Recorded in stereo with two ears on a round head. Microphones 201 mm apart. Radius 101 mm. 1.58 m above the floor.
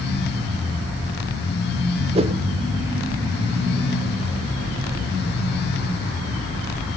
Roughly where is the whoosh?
Right.